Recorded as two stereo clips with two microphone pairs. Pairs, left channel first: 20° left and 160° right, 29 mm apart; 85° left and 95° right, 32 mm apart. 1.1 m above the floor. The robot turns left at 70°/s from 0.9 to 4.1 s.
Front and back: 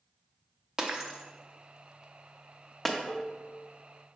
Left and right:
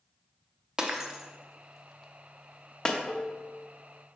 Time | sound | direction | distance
0.8 | breaking glass | 135° right | 0.5 m
3.1 | dishes clattering | 65° left | 0.5 m